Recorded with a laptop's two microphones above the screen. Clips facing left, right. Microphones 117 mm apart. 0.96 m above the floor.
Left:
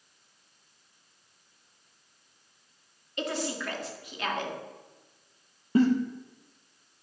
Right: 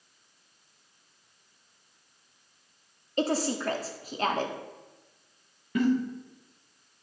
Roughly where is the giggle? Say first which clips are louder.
Left 5 dB; left.